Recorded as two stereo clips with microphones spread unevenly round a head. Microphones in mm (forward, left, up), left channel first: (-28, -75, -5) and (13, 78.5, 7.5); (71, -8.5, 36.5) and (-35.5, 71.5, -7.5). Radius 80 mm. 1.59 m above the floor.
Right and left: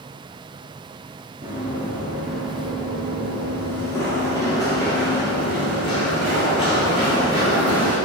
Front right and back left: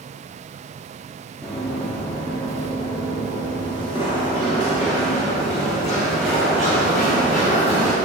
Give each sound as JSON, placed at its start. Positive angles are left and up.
{"t": 1.4, "sound": "running footsteps", "azimuth_deg": 20, "distance_m": 1.8}